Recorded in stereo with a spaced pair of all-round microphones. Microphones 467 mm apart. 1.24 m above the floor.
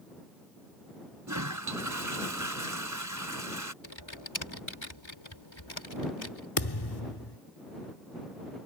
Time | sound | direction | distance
1.3 | a toilet flushing | 40° right (ahead or behind) | ?
3.8 | typing on a keyboard | 70° left (ahead or behind) | ?
6.6 | a thud | 55° left (ahead or behind) | ?